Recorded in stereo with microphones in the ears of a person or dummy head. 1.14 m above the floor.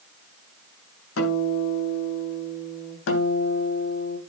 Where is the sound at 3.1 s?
75° left (ahead or behind), 3 m.